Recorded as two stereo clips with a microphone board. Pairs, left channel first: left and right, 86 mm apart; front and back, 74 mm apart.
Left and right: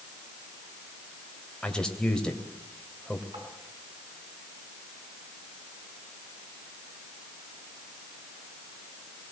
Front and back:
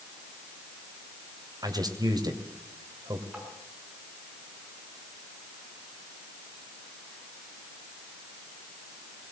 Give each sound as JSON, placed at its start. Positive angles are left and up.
{"t": 1.6, "sound": "a man speaking", "azimuth_deg": 170, "distance_m": 2.5}
{"t": 3.3, "sound": "tapping", "azimuth_deg": -105, "distance_m": 6.5}